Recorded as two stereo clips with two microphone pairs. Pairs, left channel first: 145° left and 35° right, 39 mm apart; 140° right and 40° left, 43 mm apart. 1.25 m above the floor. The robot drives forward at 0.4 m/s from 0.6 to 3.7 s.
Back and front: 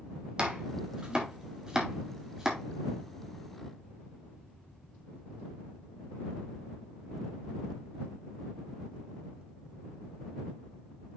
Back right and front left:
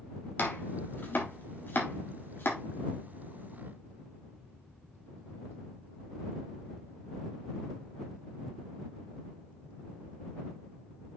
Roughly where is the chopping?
Right.